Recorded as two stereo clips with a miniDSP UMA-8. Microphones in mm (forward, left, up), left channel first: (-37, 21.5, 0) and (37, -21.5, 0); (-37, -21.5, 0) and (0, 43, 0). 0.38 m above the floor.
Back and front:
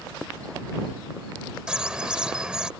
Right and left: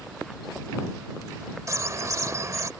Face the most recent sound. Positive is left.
turn(degrees=45)